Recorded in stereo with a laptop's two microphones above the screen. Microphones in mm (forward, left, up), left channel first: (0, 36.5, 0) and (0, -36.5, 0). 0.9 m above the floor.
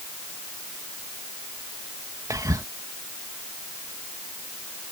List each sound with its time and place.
2.3 s whispering: 50° right (ahead or behind)